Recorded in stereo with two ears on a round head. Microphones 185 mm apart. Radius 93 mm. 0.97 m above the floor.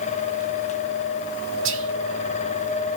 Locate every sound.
1.6 s whispering: 65° right (ahead or behind), 1.8 m